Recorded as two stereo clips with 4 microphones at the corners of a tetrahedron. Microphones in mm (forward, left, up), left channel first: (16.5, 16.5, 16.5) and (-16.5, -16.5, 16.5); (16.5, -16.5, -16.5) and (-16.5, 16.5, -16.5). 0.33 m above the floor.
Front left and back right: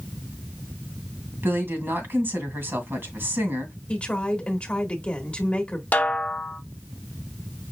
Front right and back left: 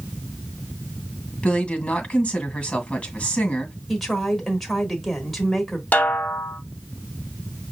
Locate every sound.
1.4 s a woman speaking: 110° right, 1.9 m
3.9 s a woman speaking: 40° left, 1.1 m
5.9 s a snare drum: straight ahead, 0.7 m